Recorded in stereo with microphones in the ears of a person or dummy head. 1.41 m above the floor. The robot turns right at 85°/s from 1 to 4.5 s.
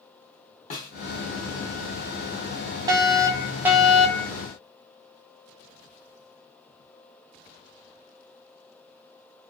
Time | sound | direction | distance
0.7 | a snare drum | 40° left (ahead or behind) | 1.5 m
2.9 | a fire alarm | 20° right (ahead or behind) | 1.0 m